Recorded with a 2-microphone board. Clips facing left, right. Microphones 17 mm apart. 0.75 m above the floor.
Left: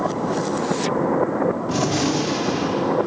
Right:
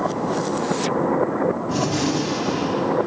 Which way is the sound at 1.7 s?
30° left (ahead or behind).